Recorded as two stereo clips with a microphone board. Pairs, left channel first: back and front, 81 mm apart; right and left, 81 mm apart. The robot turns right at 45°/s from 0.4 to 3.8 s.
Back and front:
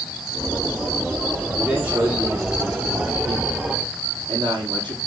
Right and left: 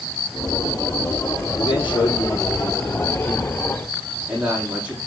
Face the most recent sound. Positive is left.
turn(degrees=20)